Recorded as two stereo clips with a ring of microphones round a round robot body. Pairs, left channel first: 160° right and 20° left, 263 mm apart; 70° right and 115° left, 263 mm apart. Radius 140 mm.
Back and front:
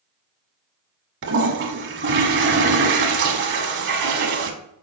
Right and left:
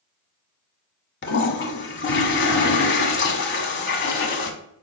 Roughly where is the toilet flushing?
Ahead.